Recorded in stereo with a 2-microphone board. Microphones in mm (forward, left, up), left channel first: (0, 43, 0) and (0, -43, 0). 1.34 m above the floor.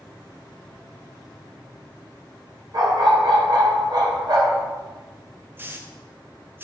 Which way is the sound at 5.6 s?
25° right (ahead or behind).